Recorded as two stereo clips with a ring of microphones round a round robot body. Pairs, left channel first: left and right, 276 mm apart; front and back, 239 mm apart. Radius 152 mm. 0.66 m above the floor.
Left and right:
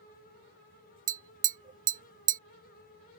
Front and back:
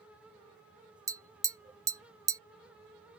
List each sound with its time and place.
1.1 s tapping: 115° right